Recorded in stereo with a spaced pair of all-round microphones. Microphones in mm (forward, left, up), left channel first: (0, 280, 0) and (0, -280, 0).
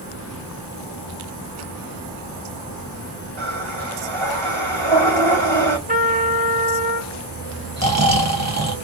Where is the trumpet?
15° right (ahead or behind), 0.9 m.